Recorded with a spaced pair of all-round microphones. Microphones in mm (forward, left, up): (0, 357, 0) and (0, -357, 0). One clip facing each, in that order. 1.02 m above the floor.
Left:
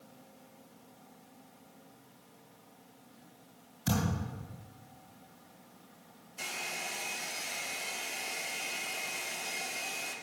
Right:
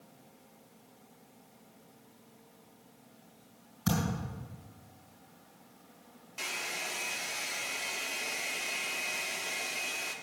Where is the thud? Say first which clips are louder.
Even; 85° right, 6.5 m.